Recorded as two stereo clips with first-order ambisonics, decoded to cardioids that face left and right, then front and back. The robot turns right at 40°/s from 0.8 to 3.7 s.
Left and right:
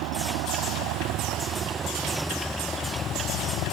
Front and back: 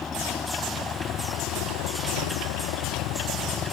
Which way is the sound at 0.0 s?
70° right.